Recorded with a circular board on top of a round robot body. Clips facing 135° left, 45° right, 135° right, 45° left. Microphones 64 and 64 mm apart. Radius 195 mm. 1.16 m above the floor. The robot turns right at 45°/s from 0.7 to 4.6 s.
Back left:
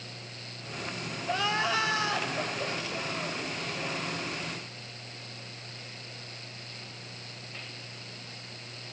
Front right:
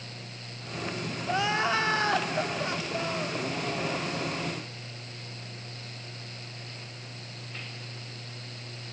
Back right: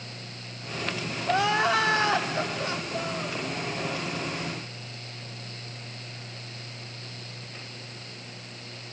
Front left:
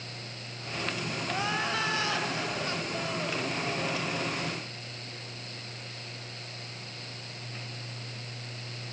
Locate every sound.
1.3 s crying: 125° right, 2 m; by 3.4 s 30° right, 2 m